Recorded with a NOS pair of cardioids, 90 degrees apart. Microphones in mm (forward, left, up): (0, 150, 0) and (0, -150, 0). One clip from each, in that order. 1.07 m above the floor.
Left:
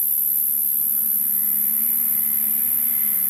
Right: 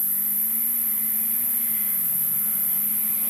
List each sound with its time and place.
0.0 s an insect: 35° left, 1.1 m